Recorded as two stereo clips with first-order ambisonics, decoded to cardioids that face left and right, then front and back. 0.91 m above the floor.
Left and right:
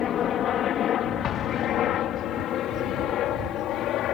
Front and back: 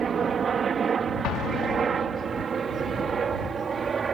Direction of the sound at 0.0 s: 125° left.